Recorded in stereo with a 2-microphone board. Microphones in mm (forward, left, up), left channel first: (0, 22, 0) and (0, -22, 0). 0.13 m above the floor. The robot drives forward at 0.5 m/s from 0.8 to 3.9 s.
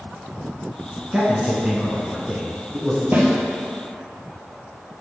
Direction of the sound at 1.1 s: 20° right (ahead or behind).